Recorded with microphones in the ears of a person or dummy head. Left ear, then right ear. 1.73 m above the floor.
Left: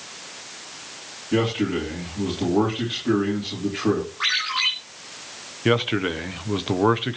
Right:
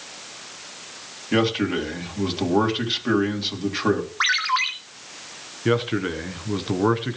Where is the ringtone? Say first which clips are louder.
Right 1 dB; 50° right (ahead or behind), 2.5 m.